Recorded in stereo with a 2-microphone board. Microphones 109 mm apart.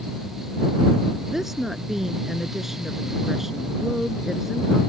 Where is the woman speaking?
5° right (ahead or behind).